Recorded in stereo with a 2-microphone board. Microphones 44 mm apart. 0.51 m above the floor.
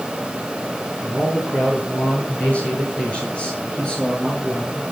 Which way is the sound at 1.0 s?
35° left (ahead or behind).